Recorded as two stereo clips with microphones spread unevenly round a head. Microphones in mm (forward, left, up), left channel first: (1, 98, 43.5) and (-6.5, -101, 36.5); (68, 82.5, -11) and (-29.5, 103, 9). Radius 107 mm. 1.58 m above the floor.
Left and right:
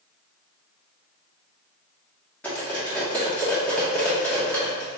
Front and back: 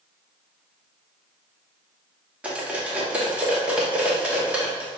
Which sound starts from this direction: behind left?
Cutlery clinking, at 2.4 s.